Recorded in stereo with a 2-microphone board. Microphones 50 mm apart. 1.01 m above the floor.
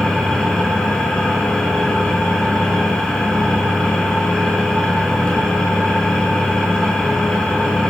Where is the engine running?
15° left (ahead or behind), 7 m.